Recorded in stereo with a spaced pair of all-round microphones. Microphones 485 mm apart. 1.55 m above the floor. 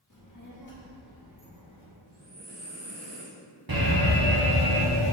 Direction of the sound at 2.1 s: 55° right (ahead or behind).